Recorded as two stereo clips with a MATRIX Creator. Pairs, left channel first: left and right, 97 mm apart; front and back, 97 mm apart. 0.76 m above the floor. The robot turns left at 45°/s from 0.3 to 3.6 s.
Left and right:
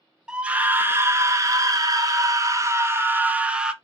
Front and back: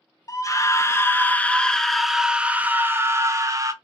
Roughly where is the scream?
Ahead.